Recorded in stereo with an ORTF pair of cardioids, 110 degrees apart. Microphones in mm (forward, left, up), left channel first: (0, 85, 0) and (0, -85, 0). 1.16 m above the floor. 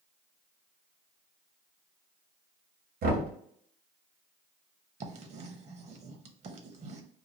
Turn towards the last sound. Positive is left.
turn(degrees=-45)